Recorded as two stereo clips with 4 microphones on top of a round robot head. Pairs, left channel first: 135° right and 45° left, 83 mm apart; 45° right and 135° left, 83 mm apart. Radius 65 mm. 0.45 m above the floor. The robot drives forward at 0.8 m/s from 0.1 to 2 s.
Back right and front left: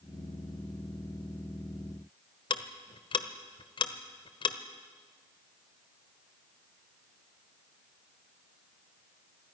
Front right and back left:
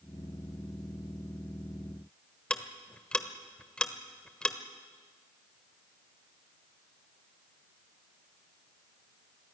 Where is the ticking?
120° right, 1.2 m.